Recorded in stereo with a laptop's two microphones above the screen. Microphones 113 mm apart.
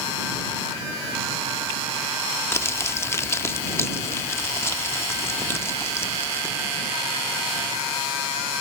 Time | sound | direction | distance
2.5 | crumpling | 25° left (ahead or behind) | ?